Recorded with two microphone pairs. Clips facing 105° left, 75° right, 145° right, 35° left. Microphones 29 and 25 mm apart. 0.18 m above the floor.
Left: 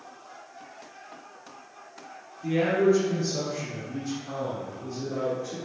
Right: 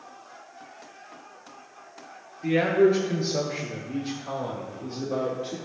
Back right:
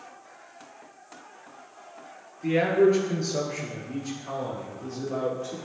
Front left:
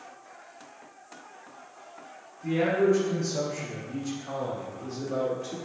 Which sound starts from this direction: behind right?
A man speaking, at 2.4 s.